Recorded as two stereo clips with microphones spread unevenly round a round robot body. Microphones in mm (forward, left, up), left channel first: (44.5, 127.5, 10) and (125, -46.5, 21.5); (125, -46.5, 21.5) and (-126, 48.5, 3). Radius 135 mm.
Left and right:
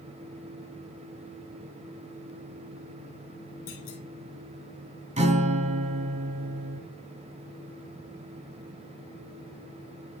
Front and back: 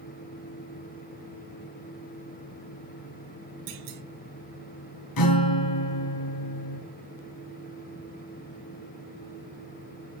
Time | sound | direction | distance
3.7 | a clunk | 145° left | 2.5 m
5.2 | a guitar | 10° right | 2 m